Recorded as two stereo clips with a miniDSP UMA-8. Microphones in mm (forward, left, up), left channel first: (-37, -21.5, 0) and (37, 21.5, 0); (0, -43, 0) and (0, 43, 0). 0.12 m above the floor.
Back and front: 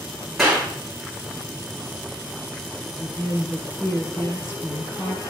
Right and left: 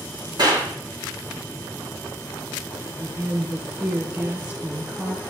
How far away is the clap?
About 6 m.